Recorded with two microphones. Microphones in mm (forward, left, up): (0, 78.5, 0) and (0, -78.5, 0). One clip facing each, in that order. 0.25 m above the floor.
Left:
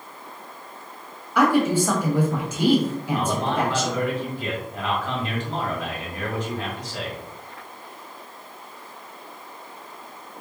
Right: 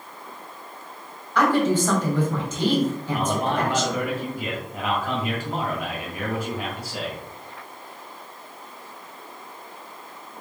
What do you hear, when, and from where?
1.4 s a woman speaking: 10° left (ahead or behind), 1.2 m
3.1 s a man speaking: 10° right (ahead or behind), 1.5 m